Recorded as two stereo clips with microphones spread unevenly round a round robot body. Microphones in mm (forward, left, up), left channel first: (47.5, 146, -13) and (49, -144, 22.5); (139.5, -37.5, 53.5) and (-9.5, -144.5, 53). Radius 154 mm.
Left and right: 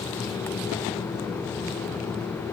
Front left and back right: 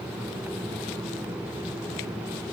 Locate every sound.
Only background noise.